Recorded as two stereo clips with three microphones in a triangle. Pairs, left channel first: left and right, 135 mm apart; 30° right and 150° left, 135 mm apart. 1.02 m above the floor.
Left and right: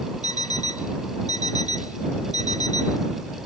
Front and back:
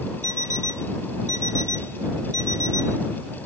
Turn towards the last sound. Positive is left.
turn(degrees=-55)